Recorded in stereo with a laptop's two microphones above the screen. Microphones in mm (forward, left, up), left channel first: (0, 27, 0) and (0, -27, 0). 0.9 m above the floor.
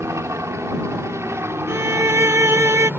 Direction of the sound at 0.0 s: 60° right (ahead or behind).